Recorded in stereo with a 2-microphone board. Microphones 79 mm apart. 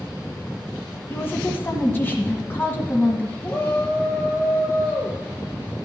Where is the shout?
25° left (ahead or behind), 7 m.